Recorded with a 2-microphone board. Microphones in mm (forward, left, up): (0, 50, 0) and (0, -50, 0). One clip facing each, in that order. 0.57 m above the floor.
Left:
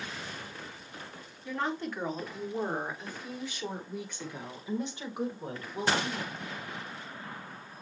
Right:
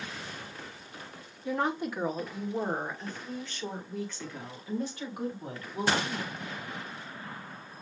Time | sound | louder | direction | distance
1.4 | a woman speaking | right 3 dB | 20° right (ahead or behind) | 1.6 m